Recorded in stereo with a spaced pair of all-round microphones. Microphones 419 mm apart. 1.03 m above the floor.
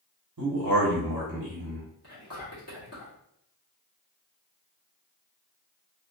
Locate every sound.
0.4 s a man speaking: 55° right (ahead or behind), 1.1 m
2.0 s whispering: 35° left (ahead or behind), 1.7 m